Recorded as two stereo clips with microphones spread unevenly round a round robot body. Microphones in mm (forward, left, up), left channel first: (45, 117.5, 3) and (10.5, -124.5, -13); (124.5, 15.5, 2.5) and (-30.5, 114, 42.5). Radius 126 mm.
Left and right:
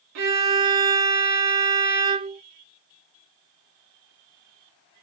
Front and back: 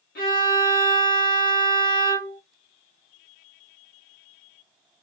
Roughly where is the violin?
Right.